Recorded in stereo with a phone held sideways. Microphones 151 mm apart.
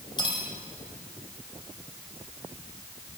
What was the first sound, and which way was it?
Cutlery clinking, 30° left (ahead or behind).